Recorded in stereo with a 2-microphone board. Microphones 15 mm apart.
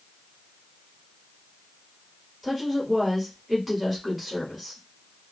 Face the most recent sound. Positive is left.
turn(degrees=0)  # may be behind; listen again after turning